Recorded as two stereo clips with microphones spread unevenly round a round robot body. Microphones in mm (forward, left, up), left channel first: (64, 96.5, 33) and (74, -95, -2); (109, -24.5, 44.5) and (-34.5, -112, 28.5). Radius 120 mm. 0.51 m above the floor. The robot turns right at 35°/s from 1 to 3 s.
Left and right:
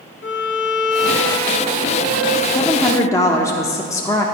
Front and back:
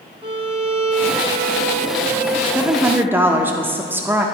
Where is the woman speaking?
155° left, 0.7 m; by 4.2 s 170° left, 0.7 m.